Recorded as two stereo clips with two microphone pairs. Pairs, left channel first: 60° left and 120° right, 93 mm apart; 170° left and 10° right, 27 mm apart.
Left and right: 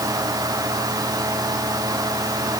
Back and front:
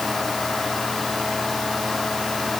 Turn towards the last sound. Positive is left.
No sound to turn to.